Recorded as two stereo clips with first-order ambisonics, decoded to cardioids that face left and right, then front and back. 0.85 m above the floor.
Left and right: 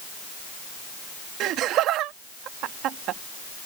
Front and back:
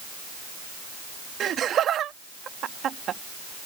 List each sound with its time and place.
1.4 s laughter: 125° right